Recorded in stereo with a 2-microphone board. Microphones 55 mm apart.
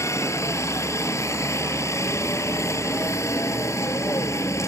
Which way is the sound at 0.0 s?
65° left (ahead or behind).